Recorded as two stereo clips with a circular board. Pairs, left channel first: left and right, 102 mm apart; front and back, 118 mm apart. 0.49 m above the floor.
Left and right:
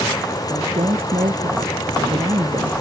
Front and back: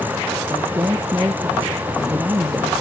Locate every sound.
0.5 s a woman speaking: 115° right; by 2.7 s 110° right